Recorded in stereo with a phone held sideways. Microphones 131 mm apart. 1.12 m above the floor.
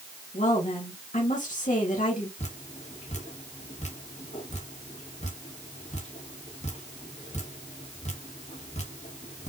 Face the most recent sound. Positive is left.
turn(degrees=60)  # may be behind; listen again after turning